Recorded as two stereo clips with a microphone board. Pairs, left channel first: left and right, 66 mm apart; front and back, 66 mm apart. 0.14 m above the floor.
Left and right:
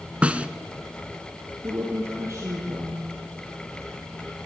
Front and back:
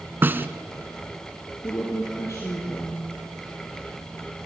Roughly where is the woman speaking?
Ahead right.